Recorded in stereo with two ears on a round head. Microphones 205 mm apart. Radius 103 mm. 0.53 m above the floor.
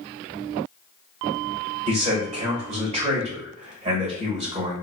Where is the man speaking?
30° right (ahead or behind), 1.8 m.